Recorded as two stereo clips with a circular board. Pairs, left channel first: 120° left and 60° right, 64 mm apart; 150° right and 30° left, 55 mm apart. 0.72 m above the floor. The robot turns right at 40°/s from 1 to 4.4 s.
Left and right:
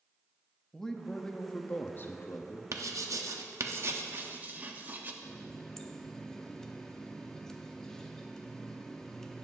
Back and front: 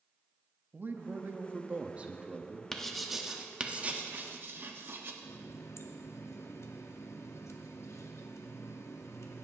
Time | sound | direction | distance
0.7 | a man speaking | 45° left | 0.7 m
2.7 | writing | 70° right | 0.8 m
5.2 | a running tap | 160° right | 0.7 m